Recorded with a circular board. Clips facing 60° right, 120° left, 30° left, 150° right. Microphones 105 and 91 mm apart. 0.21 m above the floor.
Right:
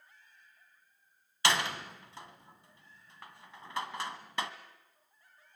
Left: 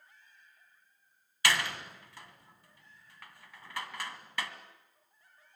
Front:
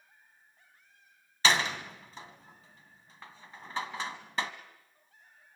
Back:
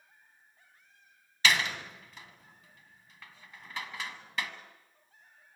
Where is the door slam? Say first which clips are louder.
Right 1 dB, front 1 dB; 10° right, 1.3 m.